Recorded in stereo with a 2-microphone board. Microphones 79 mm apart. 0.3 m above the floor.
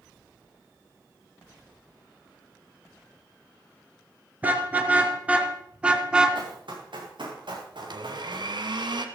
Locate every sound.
4.4 s a car horn: 20° right (ahead or behind), 2 m; by 6.4 s 10° right (ahead or behind), 1.3 m
6.3 s running footsteps: 75° right (ahead or behind), 5.5 m; by 8.5 s 70° right (ahead or behind), 6.5 m
7.8 s a blender: 65° right (ahead or behind), 1.4 m